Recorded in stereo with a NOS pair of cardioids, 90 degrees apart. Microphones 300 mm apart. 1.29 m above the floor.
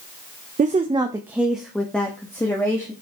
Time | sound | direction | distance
0.6 | a woman speaking | 25° right | 0.8 m